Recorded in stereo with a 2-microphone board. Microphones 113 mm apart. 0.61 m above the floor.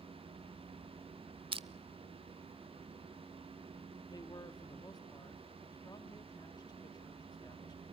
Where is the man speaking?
35° left (ahead or behind), 1.1 m.